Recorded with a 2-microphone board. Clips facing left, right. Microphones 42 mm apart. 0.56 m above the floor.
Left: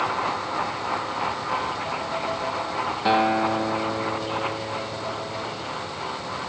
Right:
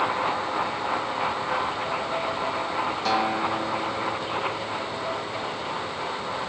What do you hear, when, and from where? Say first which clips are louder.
3.0 s a guitar: left 6 dB; 20° left (ahead or behind), 0.7 m